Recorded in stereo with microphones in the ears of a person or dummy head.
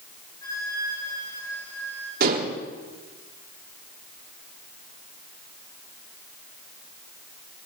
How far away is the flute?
About 6.5 m.